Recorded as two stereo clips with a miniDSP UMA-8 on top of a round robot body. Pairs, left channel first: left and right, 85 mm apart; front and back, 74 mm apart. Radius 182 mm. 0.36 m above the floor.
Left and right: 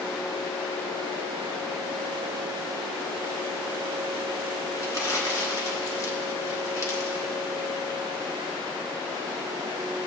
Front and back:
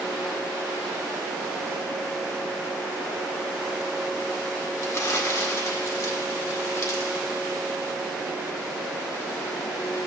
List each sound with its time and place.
4.8 s crumpling: 45° left, 1.8 m